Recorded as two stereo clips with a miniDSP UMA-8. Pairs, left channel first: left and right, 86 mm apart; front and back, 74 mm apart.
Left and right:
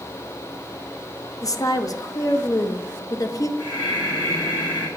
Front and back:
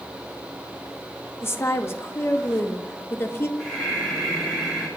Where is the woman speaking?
50° left, 0.7 m.